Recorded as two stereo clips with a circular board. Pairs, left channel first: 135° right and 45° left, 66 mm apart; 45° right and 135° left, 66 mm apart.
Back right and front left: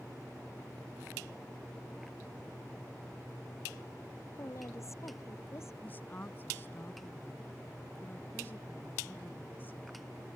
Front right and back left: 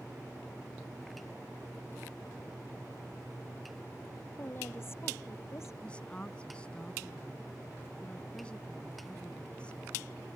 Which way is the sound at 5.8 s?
105° right.